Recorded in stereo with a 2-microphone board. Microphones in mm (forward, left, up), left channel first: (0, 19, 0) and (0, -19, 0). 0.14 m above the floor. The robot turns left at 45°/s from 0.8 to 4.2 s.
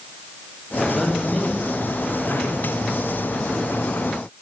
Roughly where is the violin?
No violin in this recording.